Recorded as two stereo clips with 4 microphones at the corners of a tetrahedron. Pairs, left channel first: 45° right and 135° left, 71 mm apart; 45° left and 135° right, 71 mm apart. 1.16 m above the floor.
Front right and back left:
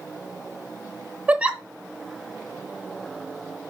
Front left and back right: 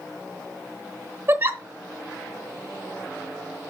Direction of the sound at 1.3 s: 165° right.